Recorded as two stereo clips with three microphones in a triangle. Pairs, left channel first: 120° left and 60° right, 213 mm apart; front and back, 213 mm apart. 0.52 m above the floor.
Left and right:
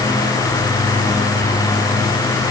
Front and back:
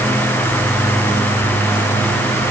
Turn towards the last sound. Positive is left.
No sound to turn to.